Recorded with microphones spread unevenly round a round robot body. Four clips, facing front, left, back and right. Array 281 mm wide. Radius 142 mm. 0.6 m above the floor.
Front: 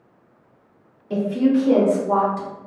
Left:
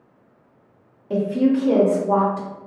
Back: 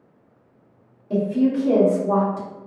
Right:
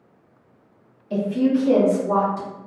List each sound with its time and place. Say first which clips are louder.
1.1 s a woman speaking: left 1 dB, front 1 dB; 90° left, 1.4 m; by 2.5 s 175° right, 1.2 m